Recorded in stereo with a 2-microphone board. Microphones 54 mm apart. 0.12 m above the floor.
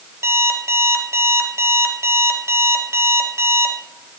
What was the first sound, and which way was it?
An alarm clock, 55° right (ahead or behind).